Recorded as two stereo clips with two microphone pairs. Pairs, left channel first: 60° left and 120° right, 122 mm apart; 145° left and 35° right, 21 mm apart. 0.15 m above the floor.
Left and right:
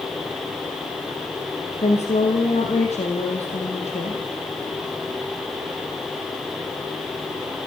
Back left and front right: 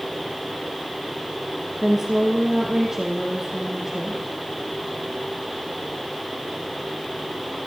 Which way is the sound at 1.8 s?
35° left.